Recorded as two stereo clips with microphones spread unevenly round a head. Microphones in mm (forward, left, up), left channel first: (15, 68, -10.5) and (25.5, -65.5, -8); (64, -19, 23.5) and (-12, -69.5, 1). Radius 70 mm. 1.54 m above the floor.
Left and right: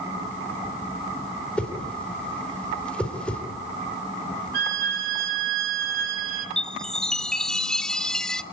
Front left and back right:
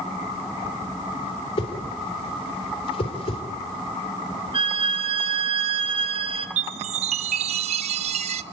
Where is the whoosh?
10° left, 4 m.